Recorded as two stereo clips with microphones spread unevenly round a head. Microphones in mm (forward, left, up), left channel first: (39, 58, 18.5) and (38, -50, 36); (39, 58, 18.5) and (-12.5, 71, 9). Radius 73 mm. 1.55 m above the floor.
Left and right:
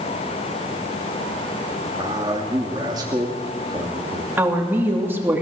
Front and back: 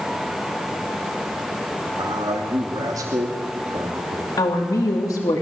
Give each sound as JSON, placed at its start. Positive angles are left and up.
{"t": 1.9, "sound": "a man speaking", "azimuth_deg": -155, "distance_m": 2.5}
{"t": 4.4, "sound": "a woman speaking", "azimuth_deg": -20, "distance_m": 3.0}